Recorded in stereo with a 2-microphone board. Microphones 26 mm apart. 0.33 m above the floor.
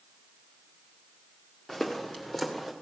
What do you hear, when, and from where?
1.7 s footsteps: 10° left (ahead or behind), 2.0 m; by 2.7 s 5° left (ahead or behind), 2.5 m